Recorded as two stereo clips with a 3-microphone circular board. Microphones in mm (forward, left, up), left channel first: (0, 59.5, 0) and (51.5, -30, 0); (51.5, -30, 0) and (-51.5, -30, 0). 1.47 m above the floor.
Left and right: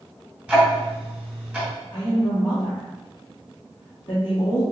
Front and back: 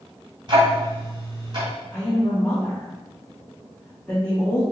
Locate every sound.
0.5 s ticking: 140° right, 1.9 m
1.9 s a woman speaking: 80° left, 1.2 m